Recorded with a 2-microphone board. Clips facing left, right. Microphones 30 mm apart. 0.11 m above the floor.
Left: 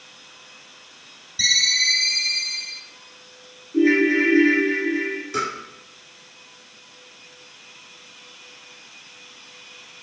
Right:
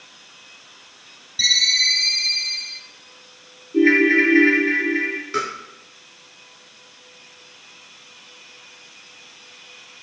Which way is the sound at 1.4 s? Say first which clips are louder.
Right 2 dB; 30° right (ahead or behind).